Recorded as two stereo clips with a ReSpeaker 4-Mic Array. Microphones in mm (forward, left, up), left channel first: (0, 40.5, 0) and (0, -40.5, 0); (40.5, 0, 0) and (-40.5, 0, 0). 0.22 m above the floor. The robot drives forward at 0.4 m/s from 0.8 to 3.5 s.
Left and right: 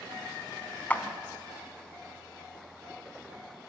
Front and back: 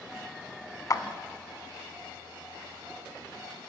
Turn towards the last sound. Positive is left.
turn(degrees=105)